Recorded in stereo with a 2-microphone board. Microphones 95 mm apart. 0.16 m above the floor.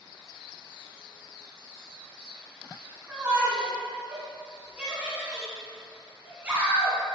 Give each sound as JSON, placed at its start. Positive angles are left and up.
{"t": 3.1, "sound": "a shout", "side_deg": -15, "distance_m": 1.4}